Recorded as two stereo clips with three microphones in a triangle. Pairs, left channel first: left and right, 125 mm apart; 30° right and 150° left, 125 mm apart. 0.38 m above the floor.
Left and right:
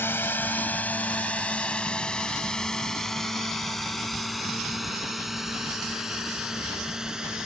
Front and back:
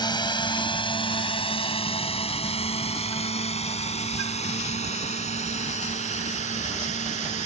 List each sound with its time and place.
0.0 s a drone: 20° left; by 7.5 s 5° right